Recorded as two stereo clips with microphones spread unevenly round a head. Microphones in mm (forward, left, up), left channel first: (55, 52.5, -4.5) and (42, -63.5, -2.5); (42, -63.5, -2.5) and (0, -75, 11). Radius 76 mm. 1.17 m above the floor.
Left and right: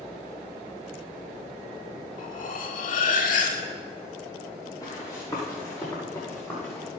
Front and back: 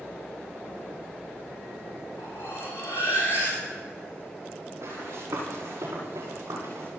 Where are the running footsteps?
155° left, 7.5 m; by 6.9 s 160° left, 8 m.